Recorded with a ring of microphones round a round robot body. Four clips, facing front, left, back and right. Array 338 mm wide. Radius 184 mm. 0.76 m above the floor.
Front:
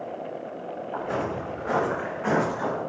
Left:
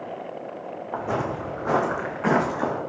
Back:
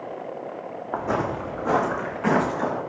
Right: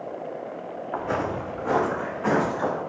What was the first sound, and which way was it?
Footsteps, 165° left.